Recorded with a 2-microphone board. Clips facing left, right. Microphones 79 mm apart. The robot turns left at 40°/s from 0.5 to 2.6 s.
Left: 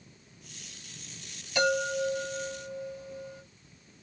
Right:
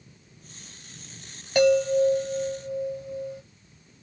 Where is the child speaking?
No child speaking in this recording.